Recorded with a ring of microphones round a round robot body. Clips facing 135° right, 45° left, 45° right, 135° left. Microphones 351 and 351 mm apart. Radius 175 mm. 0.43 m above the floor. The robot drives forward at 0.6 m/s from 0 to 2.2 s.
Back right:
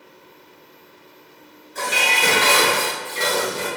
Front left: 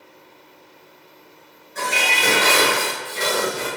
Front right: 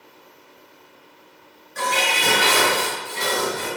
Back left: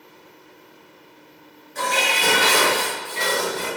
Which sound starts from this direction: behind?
Dishes clattering, at 1.8 s.